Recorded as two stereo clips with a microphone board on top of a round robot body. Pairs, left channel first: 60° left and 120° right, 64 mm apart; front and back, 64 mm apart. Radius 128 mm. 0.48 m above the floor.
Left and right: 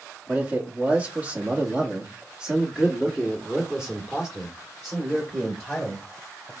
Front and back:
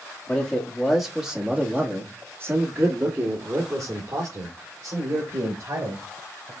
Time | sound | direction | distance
0.3 | a man speaking | 65° right | 1.4 m